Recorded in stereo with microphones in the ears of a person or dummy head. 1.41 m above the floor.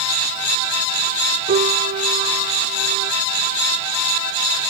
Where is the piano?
35° right (ahead or behind).